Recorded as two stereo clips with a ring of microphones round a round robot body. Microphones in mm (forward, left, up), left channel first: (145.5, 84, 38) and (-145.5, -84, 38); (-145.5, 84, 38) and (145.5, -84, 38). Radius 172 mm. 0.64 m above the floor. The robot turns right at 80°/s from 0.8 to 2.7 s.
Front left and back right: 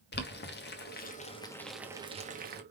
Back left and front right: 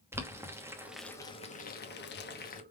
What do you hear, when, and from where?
0.1 s boiling: 45° left, 1.1 m; by 2.6 s 170° right, 1.1 m